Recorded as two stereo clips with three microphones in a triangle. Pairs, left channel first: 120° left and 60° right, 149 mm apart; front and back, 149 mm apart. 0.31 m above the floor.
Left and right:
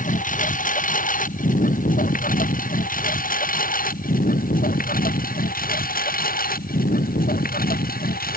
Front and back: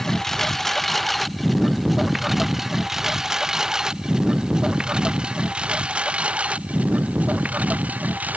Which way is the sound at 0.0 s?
90° left.